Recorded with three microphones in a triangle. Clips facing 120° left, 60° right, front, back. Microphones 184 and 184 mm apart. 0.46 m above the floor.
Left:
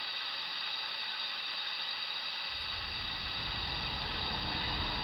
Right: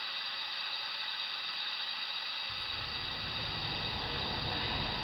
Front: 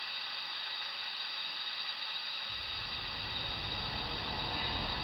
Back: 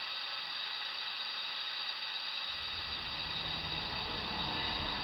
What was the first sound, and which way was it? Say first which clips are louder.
A bird: right 1 dB, front 2 dB; 85° right.